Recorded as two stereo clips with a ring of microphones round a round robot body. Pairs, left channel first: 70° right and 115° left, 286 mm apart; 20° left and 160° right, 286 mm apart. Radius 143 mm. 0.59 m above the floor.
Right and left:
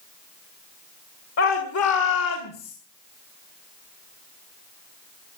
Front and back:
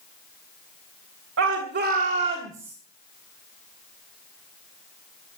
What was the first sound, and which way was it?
A shout, 110° right.